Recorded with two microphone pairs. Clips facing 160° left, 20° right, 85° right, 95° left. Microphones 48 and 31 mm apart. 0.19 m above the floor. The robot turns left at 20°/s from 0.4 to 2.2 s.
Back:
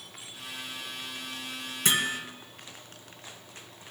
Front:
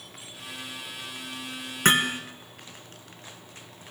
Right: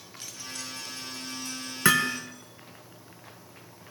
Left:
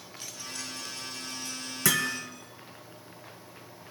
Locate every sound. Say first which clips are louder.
1.9 s hammering: front 6 dB, right 5 dB; 35° right, 1.5 m; by 2.2 s 40° right, 1.5 m